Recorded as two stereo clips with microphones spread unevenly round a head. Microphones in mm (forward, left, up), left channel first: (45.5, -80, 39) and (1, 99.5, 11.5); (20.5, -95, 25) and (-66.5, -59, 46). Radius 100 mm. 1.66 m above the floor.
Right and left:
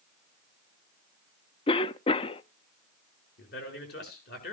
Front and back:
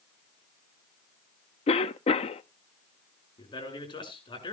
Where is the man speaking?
50° right, 7 m.